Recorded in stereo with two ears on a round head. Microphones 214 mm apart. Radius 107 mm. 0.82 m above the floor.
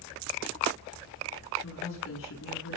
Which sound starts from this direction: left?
A woman speaking, at 1.6 s.